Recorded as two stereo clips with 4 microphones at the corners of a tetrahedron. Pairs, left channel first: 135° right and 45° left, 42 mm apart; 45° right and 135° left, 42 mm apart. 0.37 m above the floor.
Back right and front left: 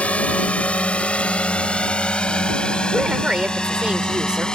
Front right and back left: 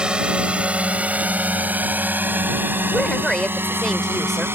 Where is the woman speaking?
15° left.